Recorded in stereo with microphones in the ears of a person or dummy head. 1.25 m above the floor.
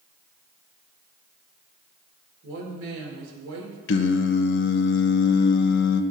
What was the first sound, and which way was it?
A woman speaking, 85° right.